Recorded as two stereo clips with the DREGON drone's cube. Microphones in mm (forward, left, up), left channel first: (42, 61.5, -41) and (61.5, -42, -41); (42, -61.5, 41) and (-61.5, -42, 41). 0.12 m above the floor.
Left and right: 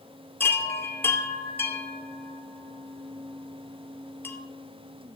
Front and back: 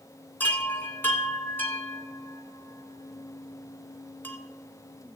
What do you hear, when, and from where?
0.4 s a chime: 50° left, 2 m